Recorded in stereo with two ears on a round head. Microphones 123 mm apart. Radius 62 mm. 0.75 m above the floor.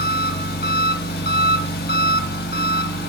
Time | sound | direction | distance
0.0 | an engine running | 75° left (ahead or behind) | 0.9 m